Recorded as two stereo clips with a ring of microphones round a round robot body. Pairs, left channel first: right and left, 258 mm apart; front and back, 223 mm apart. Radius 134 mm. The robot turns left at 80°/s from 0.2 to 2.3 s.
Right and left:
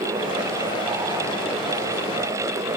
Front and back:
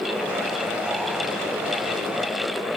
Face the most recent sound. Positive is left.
No sound to turn to.